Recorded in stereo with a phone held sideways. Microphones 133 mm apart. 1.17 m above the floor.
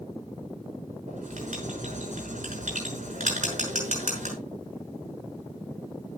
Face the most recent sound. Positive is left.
turn(degrees=-75)  # may be behind; listen again after turning